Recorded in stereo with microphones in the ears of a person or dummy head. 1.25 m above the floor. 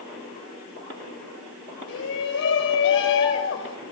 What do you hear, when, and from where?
1.9 s a shout: 75° left (ahead or behind), 6 m